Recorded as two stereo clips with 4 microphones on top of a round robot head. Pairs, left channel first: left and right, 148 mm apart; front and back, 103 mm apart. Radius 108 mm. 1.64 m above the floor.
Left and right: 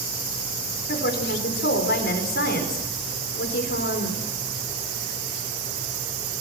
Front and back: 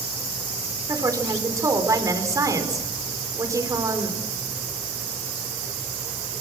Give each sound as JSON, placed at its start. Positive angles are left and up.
{"t": 0.9, "sound": "a woman speaking", "azimuth_deg": 125, "distance_m": 5.0}